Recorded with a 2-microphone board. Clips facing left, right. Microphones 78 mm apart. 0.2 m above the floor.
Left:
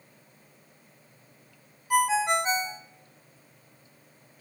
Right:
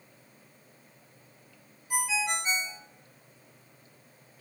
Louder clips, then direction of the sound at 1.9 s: Left 8 dB; 50° left (ahead or behind).